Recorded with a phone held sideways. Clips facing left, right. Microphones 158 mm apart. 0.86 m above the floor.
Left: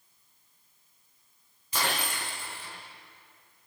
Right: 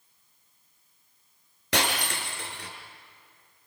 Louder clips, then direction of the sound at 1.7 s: Right 3 dB; 85° right.